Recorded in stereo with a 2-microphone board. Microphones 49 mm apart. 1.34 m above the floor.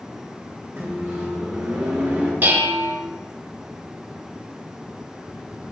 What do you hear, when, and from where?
0.8 s a microwave: 60° right (ahead or behind), 1.6 m
2.4 s dishes clattering: 40° right (ahead or behind), 0.6 m